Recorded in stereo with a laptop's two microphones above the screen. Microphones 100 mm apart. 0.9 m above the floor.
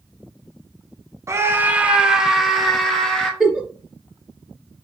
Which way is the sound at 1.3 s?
30° right (ahead or behind).